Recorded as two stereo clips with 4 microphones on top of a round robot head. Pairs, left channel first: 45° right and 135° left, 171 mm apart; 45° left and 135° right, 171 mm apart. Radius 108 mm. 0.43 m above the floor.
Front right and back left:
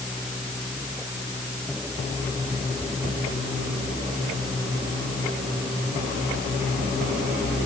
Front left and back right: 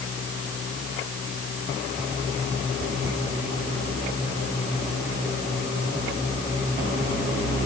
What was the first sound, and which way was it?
Only background noise.